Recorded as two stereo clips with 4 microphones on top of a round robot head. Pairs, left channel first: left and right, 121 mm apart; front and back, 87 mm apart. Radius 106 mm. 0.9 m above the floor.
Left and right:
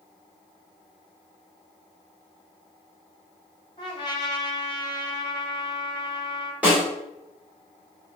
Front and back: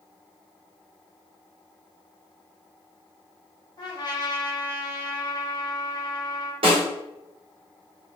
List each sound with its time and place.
3.8 s a trumpet: 35° left, 1.1 m
6.6 s a snare drum: 170° right, 2 m